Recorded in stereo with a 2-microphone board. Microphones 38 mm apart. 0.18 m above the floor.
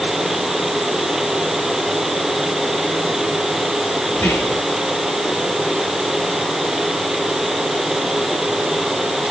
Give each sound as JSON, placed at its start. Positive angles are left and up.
{"t": 4.1, "sound": "whispering", "side_deg": 75, "distance_m": 3.5}